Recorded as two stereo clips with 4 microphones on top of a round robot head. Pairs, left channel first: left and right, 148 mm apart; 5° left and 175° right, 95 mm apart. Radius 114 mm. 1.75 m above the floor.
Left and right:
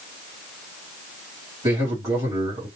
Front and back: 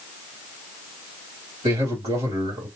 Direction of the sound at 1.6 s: 160° right.